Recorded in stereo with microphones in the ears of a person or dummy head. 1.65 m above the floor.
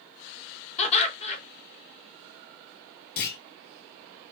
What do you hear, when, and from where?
0.8 s laughter: 35° left (ahead or behind), 1.2 m
3.2 s a clunk: 55° left (ahead or behind), 0.9 m